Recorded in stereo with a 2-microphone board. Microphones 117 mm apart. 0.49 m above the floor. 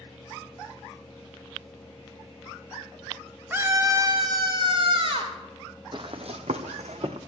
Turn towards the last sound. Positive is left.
turn(degrees=-65)  # may be behind; listen again after turning